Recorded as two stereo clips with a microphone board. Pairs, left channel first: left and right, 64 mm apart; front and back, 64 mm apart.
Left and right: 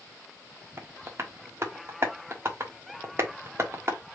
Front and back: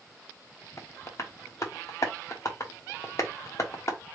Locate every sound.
0.8 s tapping: 40° right, 1.2 m